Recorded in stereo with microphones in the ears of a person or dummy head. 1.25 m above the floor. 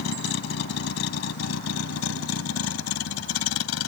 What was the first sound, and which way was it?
A vehicle, 65° left (ahead or behind).